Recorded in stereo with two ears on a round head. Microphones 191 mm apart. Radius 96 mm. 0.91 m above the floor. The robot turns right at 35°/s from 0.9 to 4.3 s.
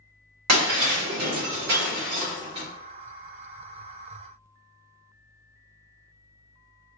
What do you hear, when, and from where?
0.5 s breaking glass: 85° right, 1.9 m; by 2.7 s 25° right (ahead or behind), 1.9 m